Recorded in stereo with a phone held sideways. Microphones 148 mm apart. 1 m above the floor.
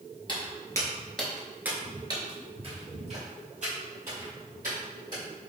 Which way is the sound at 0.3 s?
35° left (ahead or behind).